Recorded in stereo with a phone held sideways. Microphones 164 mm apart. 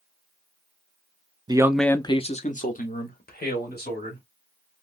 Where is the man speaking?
25° right (ahead or behind), 0.5 m; by 4.2 s 75° left (ahead or behind), 2 m.